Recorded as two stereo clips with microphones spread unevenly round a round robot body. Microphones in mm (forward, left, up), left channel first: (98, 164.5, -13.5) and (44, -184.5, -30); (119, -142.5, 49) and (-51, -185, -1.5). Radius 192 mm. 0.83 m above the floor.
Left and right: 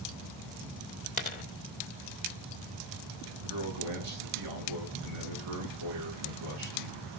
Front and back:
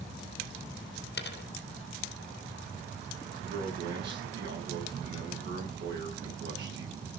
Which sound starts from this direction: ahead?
A dropped coin, at 1.2 s.